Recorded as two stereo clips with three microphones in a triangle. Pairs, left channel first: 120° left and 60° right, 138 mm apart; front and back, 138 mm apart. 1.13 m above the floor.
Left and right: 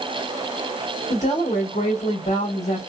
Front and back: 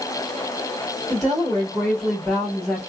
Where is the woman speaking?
90° left, 1.5 m.